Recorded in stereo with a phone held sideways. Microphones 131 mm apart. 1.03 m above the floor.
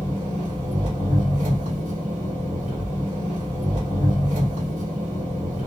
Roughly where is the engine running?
Right.